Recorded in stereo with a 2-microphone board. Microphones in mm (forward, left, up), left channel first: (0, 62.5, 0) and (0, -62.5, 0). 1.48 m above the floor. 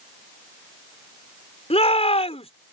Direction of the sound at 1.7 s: 55° left (ahead or behind).